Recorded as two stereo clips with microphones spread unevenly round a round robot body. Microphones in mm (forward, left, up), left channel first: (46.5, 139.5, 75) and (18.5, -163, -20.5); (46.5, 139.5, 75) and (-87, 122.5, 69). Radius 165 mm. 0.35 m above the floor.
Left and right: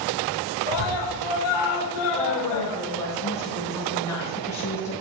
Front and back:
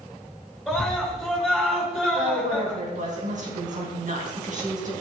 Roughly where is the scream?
Left.